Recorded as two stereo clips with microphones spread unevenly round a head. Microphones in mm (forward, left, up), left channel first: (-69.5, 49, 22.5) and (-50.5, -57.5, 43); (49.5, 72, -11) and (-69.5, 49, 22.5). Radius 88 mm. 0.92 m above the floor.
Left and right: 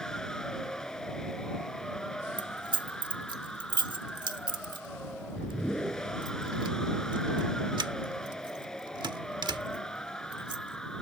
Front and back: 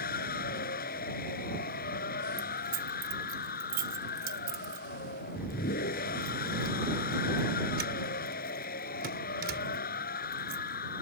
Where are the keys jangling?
130° right.